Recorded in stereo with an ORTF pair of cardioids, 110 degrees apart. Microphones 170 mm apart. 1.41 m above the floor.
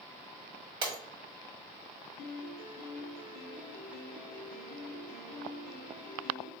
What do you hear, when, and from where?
0.8 s breaking glass: 30° right, 1.7 m
2.2 s a piano: 60° left, 1.2 m